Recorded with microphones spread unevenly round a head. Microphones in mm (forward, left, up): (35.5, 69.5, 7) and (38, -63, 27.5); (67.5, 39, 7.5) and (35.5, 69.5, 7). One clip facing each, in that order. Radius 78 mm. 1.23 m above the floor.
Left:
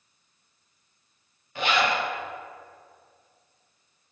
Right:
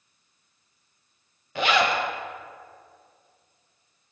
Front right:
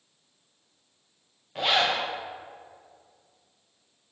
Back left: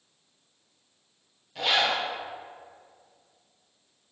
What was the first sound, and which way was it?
A zipper, 105° right.